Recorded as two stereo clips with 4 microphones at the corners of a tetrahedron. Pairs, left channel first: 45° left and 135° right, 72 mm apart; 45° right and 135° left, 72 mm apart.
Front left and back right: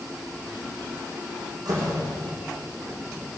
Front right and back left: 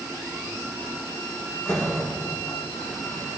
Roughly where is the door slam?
Right.